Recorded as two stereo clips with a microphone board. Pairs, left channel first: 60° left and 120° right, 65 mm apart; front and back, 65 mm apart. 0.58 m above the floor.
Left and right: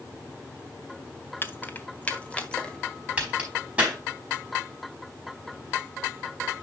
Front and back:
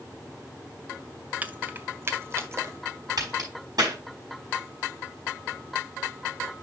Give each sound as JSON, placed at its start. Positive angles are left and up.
{"t": 1.4, "sound": "keys jangling", "azimuth_deg": 115, "distance_m": 0.9}
{"t": 3.2, "sound": "a crack", "azimuth_deg": 165, "distance_m": 4.5}